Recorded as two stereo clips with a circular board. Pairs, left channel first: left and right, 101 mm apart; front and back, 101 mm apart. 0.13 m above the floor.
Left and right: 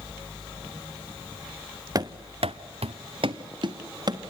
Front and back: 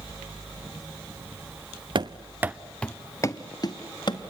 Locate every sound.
1.9 s running footsteps: 140° right, 0.7 m; by 4.2 s 40° right, 1.7 m